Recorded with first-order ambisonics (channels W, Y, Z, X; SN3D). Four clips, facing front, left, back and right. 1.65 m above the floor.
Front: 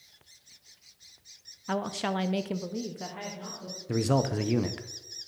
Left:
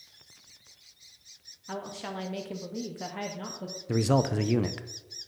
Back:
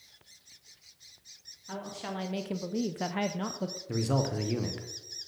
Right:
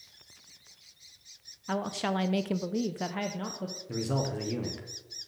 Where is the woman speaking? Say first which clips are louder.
Right 6 dB, front 8 dB; 30° right, 0.7 m; by 3.8 s 175° right, 0.8 m.